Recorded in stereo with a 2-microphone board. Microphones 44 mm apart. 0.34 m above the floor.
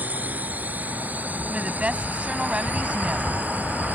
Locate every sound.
0.0 s a drone: 45° right (ahead or behind)
1.5 s a woman speaking: 30° right (ahead or behind)